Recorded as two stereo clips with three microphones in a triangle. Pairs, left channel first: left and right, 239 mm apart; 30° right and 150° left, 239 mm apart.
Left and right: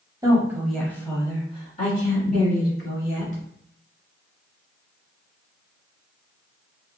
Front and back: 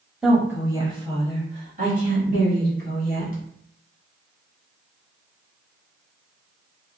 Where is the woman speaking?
130° right, 1.0 m; by 3.4 s 115° left, 1.8 m.